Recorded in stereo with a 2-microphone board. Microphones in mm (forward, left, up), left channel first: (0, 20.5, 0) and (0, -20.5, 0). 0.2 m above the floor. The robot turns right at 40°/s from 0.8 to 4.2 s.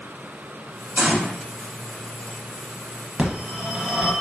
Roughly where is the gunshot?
Right.